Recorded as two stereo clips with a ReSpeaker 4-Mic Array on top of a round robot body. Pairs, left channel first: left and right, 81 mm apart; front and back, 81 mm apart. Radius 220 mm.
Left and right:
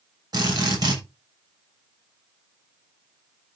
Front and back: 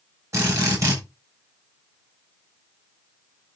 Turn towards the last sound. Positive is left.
turn(degrees=-130)